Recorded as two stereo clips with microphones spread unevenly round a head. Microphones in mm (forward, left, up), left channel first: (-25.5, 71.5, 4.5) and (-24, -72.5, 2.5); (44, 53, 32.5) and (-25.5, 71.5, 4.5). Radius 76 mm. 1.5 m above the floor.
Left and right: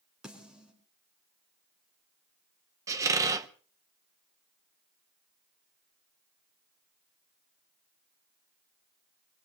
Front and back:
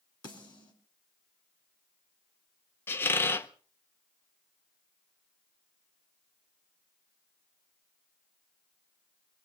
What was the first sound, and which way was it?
A snare drum, 5° right.